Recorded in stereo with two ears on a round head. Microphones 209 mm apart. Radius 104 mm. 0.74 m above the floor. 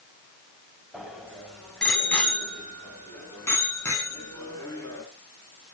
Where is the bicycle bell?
Centre (ahead or behind), 3 m; by 5.0 s 15° left (ahead or behind), 6 m.